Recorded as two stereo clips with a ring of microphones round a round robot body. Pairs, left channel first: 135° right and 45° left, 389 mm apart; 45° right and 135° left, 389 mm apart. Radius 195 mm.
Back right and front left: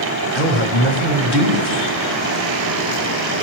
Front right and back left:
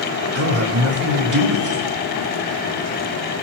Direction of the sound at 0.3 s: 175° left.